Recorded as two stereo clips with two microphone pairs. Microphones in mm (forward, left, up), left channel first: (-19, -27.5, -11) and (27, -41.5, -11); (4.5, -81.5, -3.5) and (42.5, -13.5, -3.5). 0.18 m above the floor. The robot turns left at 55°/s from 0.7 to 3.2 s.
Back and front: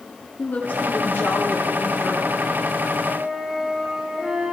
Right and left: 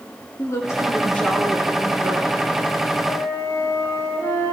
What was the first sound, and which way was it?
A woman speaking, 155° right.